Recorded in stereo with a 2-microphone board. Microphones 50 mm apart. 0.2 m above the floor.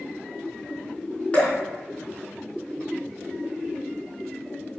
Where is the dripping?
25° left (ahead or behind), 3 m.